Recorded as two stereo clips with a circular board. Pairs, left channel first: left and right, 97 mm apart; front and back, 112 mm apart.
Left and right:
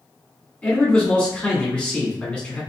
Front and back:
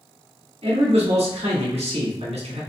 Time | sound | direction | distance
0.6 | a man speaking | 165° left | 1.7 m